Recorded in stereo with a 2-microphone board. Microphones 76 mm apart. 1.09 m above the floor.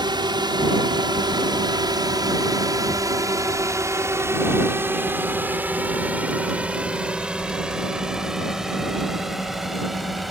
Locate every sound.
0.0 s a drone: 65° right (ahead or behind); by 10.3 s centre (ahead or behind)